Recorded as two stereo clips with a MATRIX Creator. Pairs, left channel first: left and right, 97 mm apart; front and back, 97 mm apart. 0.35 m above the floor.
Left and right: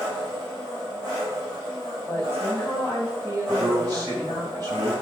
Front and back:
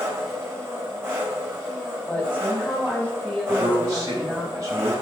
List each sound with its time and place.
0.0 s an engine running: 120° right, 1.9 m
2.1 s a woman speaking: 55° right, 1.6 m
3.5 s a man speaking: 130° right, 2.5 m